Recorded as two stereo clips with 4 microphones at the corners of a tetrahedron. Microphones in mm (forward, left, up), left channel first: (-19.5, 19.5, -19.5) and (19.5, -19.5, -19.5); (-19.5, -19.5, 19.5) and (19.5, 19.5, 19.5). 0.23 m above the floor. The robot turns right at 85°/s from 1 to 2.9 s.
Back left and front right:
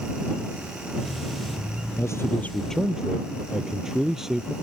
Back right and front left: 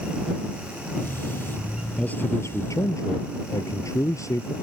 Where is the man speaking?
155° left; by 4.5 s 125° right.